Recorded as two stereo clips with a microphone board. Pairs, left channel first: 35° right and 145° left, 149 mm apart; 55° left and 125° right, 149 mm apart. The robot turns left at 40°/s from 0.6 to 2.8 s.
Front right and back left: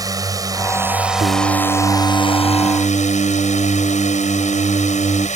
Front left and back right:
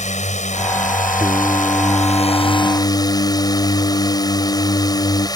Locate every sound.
0.0 s a drone: 85° left; by 5.4 s 5° right
1.2 s singing: 155° left; by 5.3 s 90° left